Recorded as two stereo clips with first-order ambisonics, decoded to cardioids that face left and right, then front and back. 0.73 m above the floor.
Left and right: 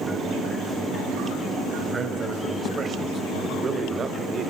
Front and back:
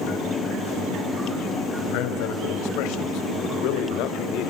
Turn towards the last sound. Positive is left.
turn(degrees=-30)